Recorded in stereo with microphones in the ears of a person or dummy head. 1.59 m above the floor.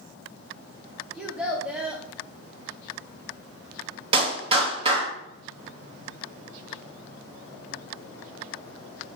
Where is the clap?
25° right (ahead or behind), 2.5 m.